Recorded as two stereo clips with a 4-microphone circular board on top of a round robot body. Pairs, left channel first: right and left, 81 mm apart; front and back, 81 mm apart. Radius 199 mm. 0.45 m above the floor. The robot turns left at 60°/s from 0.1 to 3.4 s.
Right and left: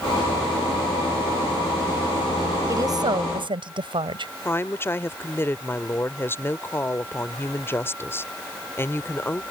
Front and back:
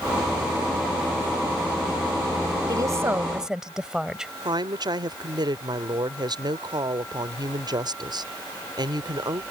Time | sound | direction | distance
2.7 | a woman speaking | 140° left | ?
4.5 | a woman speaking | 150° right | ?